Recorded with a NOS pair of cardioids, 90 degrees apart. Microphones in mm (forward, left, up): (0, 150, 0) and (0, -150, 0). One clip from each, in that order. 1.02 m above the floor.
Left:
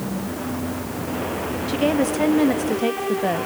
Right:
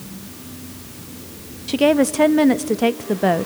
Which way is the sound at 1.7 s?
35° right.